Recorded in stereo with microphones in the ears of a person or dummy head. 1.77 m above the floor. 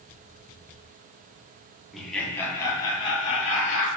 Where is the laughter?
Centre (ahead or behind), 1.0 m; by 3.9 s 40° left (ahead or behind), 1.7 m.